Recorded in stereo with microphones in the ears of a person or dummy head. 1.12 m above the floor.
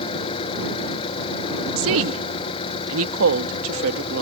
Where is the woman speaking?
75° right (ahead or behind).